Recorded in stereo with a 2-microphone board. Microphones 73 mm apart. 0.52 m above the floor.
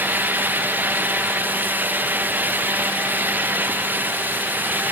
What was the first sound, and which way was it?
Only background noise.